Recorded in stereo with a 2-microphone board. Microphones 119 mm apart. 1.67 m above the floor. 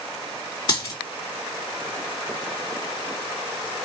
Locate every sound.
0.7 s a dropped coin: 45° left (ahead or behind), 2 m